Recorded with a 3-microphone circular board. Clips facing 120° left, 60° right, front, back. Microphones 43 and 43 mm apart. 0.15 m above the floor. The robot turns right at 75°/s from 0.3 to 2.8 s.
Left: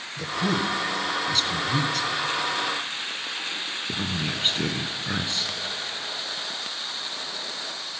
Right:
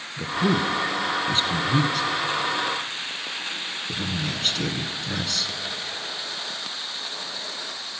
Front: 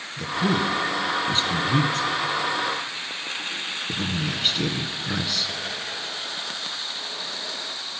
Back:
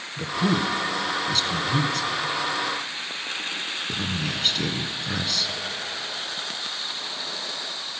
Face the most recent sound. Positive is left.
turn(degrees=75)